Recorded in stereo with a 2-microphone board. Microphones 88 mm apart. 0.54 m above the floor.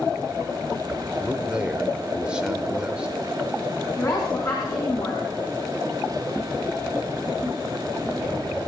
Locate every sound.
1.2 s a man speaking: 10° right (ahead or behind), 1.5 m
4.0 s a woman speaking: 45° left (ahead or behind), 4.5 m